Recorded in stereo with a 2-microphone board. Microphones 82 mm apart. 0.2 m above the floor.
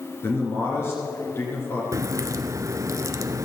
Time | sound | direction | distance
0.2 | a man speaking | 30° left (ahead or behind) | 2.5 m
1.9 | a crack | 40° right (ahead or behind) | 0.6 m